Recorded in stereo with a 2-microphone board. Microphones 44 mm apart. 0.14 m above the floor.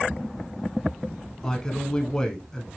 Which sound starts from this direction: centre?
A man speaking, at 1.4 s.